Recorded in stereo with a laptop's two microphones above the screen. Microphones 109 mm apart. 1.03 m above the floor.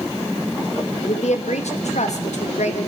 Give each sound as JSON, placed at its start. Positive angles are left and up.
{"t": 1.0, "sound": "a woman speaking", "side_deg": 80, "distance_m": 1.3}